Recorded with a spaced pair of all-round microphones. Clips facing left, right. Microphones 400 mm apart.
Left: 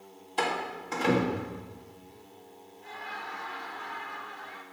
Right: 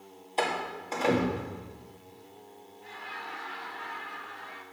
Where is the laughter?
60° left (ahead or behind), 1.5 m.